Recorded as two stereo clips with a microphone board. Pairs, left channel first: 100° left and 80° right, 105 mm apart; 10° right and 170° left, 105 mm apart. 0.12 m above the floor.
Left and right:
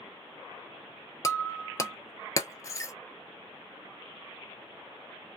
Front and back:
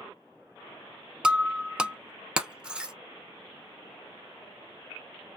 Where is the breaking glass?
95° left, 0.5 m.